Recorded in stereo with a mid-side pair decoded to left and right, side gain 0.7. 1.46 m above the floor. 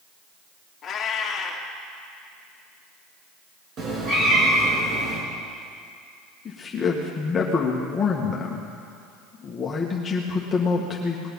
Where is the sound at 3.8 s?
45° right, 5 m.